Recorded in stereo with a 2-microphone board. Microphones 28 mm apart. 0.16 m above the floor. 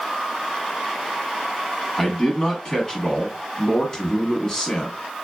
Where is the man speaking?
20° left (ahead or behind), 1.0 m.